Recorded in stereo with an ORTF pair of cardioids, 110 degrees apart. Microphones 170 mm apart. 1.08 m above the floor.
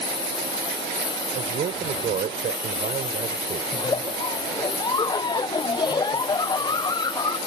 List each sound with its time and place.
0.0 s a lawn mower: 30° left
1.3 s a man speaking: 50° right
3.7 s a giggle: 25° left